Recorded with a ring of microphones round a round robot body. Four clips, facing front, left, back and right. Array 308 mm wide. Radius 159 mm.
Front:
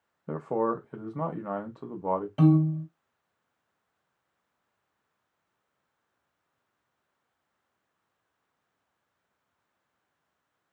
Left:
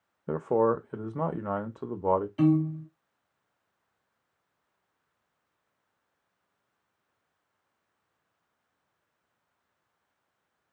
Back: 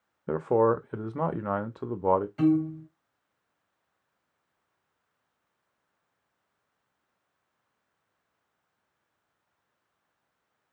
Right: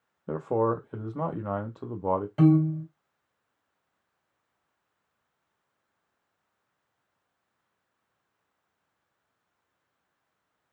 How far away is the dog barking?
I don't hear a dog barking.